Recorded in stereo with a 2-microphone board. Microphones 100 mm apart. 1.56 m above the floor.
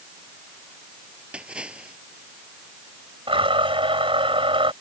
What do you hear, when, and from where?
1.3 s a splash: 10° right (ahead or behind)
3.3 s a blender: 65° right (ahead or behind)